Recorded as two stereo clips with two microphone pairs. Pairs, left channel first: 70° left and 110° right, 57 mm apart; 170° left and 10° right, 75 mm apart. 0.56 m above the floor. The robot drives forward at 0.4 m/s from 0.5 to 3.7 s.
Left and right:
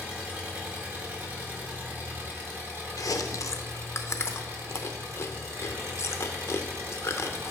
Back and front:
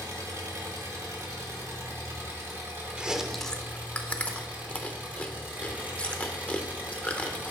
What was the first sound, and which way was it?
An engine running, 45° right.